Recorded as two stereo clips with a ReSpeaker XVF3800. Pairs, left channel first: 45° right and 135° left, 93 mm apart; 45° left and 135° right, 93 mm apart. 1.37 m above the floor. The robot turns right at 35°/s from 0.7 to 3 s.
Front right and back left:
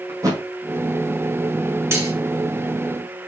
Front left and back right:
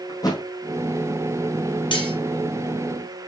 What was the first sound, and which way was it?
A thud, 85° left.